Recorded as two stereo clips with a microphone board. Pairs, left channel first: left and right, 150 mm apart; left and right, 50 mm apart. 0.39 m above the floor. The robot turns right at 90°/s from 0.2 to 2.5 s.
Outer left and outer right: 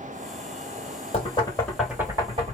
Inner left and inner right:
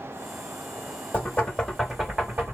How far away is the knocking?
About 1.6 m.